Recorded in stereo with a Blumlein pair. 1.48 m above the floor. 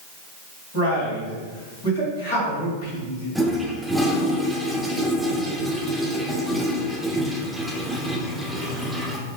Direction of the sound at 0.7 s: 45° left.